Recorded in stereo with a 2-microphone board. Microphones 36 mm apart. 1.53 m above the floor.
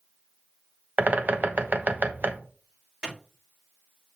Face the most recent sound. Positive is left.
turn(degrees=-25)  # may be behind; listen again after turning